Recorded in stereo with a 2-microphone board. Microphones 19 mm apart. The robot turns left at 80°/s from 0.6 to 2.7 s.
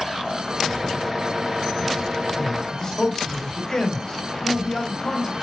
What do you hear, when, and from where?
2.4 s a man speaking: 20° left (ahead or behind), 2 m; by 5.3 s 35° left (ahead or behind), 2 m